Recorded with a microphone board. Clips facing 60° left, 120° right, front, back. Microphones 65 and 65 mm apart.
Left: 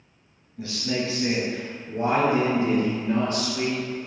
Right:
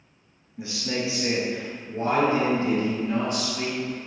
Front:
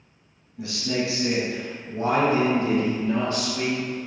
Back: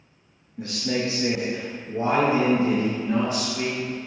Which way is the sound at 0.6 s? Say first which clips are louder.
Left 1 dB, even; straight behind.